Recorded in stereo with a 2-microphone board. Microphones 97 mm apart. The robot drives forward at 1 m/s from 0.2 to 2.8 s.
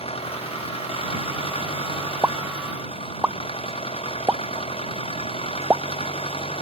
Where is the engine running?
90° left.